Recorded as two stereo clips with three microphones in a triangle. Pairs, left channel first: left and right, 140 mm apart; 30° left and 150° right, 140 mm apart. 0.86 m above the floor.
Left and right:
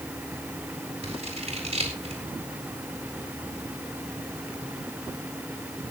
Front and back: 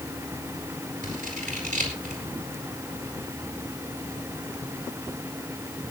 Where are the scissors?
130° right, 4.5 m.